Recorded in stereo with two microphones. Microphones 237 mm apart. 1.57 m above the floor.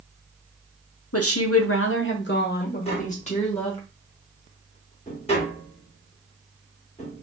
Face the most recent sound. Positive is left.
turn(degrees=25)  # may be behind; listen again after turning